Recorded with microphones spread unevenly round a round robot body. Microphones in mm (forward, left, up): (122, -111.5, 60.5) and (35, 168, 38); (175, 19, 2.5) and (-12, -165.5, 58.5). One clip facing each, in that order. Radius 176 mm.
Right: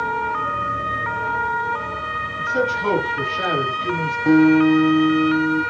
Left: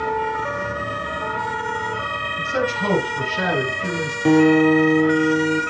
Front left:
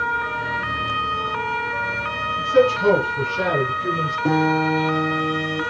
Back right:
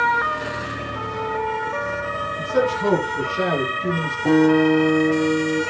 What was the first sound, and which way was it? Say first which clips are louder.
A man speaking: right 1 dB, front left 4 dB; 135° left.